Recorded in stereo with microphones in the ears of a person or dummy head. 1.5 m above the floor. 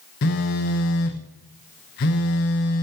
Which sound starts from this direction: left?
A phone buzzing, at 0.2 s.